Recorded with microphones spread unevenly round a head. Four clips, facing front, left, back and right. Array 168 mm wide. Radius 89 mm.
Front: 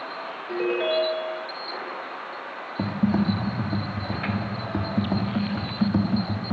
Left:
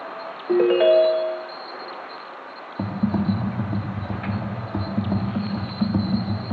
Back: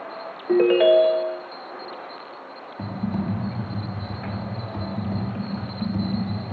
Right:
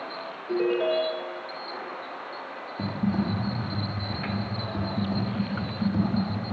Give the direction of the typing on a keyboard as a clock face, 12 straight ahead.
11 o'clock.